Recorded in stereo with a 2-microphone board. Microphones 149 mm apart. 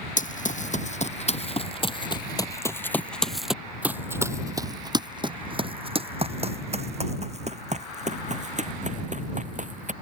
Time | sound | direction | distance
0.2 | running footsteps | 60° left (ahead or behind) | ?